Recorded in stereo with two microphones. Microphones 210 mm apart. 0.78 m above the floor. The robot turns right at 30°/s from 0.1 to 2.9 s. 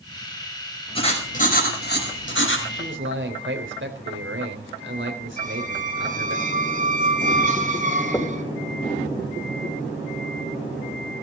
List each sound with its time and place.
0.9 s writing: 25° left, 5 m; by 2.6 s 75° left, 5 m
2.7 s a man speaking: 70° right (ahead or behind), 4 m; by 6.4 s 65° right (ahead or behind), 4 m
5.4 s a squeak: 40° right (ahead or behind), 2.5 m
8.1 s knocking: 15° left (ahead or behind), 2 m